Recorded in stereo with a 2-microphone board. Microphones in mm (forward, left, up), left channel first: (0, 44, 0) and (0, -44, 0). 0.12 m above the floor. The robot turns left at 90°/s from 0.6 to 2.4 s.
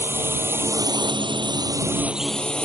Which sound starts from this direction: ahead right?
A drone, at 0.0 s.